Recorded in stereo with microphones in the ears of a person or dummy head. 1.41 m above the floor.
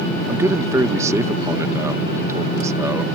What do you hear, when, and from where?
0.3 s a man speaking: 15° right (ahead or behind)